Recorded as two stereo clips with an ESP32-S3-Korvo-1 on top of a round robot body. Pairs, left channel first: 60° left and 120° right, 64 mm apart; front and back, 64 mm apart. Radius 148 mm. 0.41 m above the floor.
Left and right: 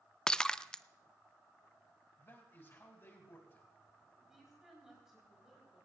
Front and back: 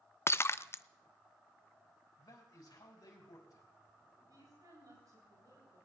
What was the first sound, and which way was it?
Breaking glass, 10° right.